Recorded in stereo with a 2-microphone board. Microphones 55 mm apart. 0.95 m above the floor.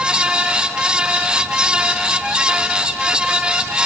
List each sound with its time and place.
Only background noise.